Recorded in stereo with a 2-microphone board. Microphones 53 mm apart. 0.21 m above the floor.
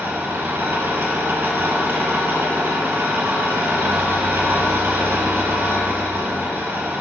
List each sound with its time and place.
0.0 s an engine running: 50° right (ahead or behind), 2 m